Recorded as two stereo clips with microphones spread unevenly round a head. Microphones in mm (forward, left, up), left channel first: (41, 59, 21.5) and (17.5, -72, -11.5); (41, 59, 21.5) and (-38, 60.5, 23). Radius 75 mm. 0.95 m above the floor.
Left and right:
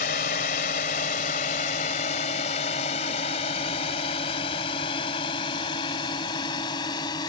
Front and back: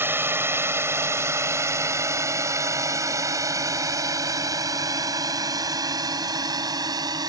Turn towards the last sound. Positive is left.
turn(degrees=145)